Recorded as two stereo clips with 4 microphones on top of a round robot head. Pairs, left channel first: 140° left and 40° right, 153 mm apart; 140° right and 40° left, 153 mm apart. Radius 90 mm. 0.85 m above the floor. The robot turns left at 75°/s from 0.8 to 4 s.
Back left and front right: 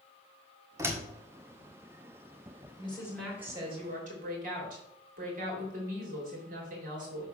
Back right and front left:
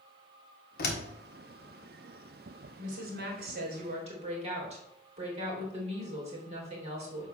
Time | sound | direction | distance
0.8 | a door slam | 110° right | 1.4 m
2.8 | a woman speaking | 85° left | 3 m